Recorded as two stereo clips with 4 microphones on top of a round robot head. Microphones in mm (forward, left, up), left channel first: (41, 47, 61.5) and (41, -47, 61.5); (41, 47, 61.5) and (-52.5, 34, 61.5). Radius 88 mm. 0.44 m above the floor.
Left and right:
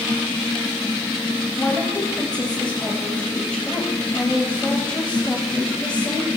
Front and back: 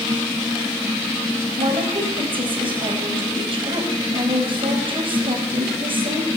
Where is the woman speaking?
165° left, 3.5 m.